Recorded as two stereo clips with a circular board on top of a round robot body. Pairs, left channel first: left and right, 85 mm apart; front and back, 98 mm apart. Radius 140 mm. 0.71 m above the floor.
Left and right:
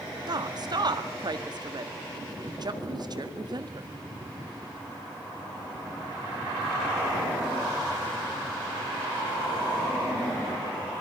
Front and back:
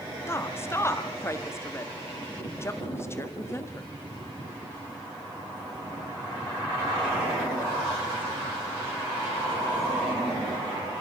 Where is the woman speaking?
60° right, 1.6 m.